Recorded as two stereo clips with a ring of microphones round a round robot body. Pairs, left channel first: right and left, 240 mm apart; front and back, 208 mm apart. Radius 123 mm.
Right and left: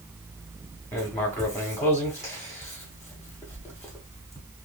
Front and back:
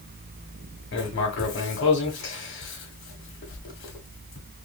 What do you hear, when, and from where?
0.9 s writing: 10° right, 1.1 m